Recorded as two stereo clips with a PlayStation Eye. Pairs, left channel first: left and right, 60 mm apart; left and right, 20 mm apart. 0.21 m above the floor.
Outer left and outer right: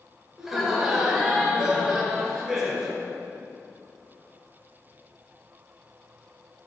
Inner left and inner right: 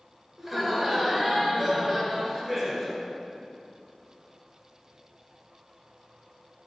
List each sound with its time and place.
0.4 s laughter: 10° right (ahead or behind), 2.5 m